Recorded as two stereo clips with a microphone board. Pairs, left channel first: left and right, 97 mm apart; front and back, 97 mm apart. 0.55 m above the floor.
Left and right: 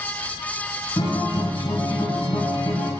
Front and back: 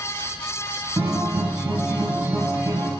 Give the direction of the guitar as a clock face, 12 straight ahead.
8 o'clock.